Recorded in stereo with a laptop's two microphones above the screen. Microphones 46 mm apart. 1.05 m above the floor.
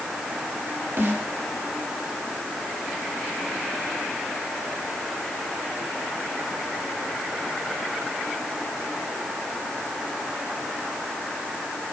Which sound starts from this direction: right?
A snare drum, at 1.0 s.